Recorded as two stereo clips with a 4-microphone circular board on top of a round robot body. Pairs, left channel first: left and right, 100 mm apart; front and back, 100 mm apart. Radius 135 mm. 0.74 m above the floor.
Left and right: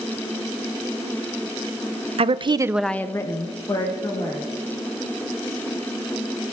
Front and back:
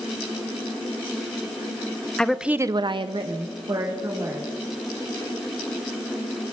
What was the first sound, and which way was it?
A woman speaking, 80° right.